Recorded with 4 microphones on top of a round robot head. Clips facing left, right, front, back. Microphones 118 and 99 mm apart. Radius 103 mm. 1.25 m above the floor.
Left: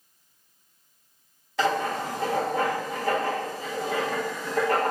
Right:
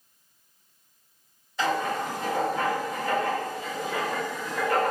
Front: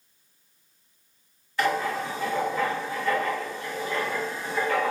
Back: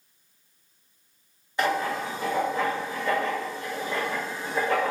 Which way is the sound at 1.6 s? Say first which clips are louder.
Left 1 dB, even; 110° left.